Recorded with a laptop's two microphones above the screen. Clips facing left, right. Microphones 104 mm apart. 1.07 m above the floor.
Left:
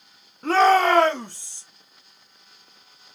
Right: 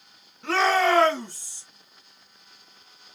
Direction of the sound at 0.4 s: 40° left (ahead or behind).